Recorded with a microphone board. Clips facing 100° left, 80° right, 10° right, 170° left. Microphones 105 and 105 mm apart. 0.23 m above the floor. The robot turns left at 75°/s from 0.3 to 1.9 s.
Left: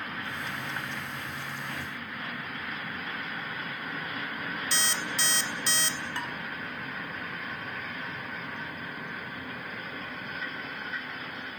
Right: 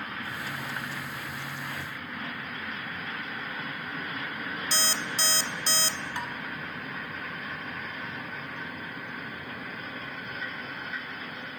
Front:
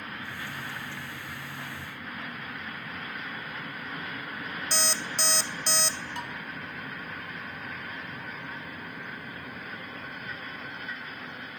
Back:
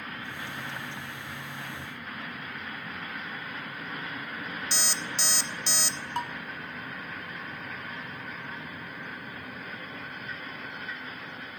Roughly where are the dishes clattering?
Behind right.